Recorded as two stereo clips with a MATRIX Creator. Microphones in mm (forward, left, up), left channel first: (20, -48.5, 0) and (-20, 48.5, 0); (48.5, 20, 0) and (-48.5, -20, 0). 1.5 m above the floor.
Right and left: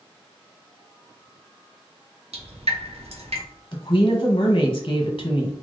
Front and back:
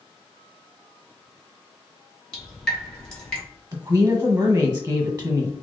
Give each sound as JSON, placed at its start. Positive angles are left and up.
{"t": 2.3, "sound": "dripping", "azimuth_deg": 105, "distance_m": 1.7}
{"t": 3.7, "sound": "a woman speaking", "azimuth_deg": -110, "distance_m": 1.5}